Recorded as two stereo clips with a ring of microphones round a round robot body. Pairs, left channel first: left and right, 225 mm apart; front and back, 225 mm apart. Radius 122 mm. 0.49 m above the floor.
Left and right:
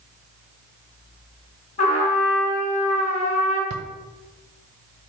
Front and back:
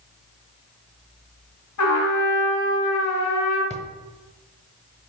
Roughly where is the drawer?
Ahead right.